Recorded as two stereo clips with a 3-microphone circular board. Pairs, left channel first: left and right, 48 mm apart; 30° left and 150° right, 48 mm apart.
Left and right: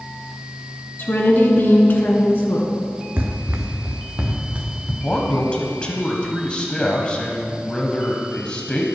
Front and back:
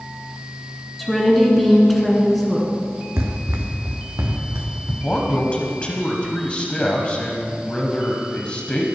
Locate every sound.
1.0 s a woman speaking: 120° left, 2.5 m
3.2 s running footsteps: 125° right, 1.2 m; by 4.9 s 145° right, 3 m
5.0 s a man speaking: 60° left, 1.2 m